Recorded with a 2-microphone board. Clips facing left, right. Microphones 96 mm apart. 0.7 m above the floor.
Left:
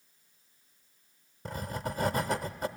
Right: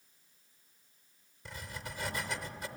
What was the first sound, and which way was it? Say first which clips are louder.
Writing: left 9 dB; 50° left (ahead or behind).